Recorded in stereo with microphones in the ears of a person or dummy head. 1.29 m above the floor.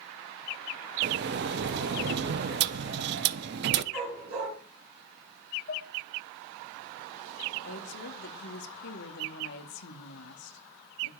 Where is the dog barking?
75° right (ahead or behind), 9.5 m.